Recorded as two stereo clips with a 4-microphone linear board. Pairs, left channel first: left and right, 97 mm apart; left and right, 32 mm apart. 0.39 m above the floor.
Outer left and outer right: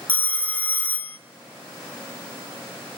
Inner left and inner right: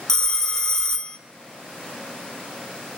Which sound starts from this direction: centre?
A phone ringing, at 0.1 s.